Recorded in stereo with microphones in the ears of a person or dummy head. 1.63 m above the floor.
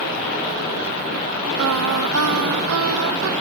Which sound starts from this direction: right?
Singing, at 1.6 s.